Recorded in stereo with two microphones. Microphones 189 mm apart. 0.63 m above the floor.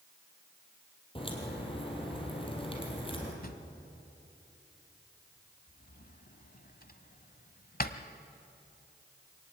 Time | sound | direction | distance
1.1 | a crack | 30° left (ahead or behind) | 4 m
3.4 | a drawer | 50° left (ahead or behind) | 1.0 m